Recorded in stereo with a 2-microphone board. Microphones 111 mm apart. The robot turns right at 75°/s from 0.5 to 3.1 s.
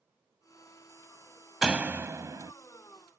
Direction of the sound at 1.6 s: 170° right.